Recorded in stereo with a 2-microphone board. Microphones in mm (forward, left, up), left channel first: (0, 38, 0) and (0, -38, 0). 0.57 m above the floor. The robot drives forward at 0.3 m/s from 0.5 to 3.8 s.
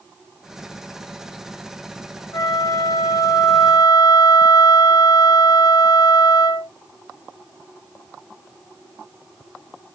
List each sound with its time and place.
2.3 s a flute: 60° left (ahead or behind), 1.2 m; by 6.7 s 70° left (ahead or behind), 1.1 m